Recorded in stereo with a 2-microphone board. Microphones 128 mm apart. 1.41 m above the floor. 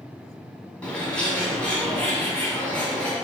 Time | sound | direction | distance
0.8 | a bird | 10° left (ahead or behind) | 2 m